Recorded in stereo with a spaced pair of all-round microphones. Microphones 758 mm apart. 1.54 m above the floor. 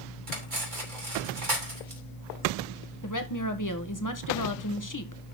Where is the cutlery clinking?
75° right (ahead or behind), 3 m.